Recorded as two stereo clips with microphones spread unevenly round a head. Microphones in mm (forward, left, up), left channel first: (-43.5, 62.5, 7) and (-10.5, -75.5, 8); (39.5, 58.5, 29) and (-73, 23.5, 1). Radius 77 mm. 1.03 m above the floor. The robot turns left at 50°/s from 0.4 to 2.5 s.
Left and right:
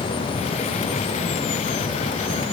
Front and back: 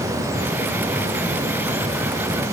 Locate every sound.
Only background noise.